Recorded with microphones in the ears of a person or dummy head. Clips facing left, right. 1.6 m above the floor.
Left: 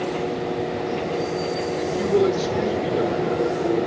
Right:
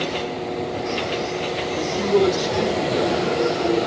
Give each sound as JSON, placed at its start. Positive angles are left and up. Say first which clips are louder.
{"t": 1.8, "sound": "a man speaking", "louder": "right 1 dB", "side_deg": -45, "distance_m": 1.4}